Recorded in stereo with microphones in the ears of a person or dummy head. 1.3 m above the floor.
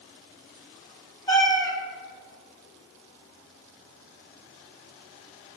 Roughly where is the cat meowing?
Left.